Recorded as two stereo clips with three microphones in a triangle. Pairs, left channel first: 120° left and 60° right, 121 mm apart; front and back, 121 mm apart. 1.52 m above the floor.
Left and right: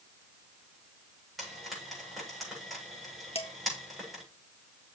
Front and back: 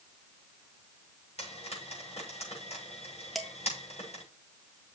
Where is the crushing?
No crushing in this recording.